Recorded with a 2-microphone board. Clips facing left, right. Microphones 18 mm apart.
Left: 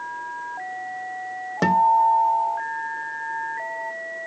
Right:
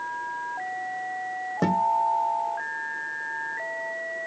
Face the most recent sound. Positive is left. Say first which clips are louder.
# left 6 dB
turn(degrees=50)  # may be behind; listen again after turning